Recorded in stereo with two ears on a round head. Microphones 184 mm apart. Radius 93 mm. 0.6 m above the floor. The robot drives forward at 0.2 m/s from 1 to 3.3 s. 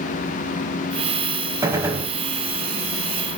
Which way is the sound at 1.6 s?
15° right (ahead or behind).